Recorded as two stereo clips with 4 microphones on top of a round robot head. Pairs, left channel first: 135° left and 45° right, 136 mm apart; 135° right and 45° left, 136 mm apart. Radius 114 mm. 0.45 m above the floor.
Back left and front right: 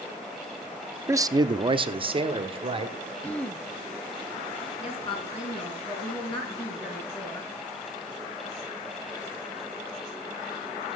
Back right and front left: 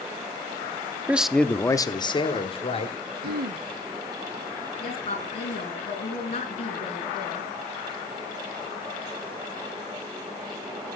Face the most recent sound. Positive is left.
turn(degrees=-175)